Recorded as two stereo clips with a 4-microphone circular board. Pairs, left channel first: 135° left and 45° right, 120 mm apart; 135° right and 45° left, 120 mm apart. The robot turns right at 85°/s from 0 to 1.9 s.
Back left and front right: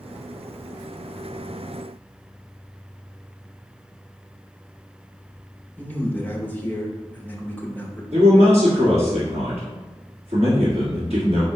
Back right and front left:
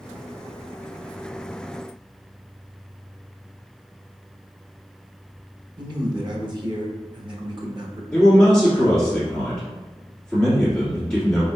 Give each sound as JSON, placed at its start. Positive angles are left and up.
{"t": 5.8, "sound": "a man speaking", "azimuth_deg": 65, "distance_m": 0.8}
{"t": 8.1, "sound": "a man speaking", "azimuth_deg": -55, "distance_m": 1.7}